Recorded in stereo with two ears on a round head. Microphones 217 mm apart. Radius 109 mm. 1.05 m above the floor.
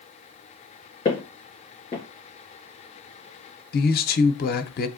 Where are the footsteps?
25° left (ahead or behind), 2.5 m.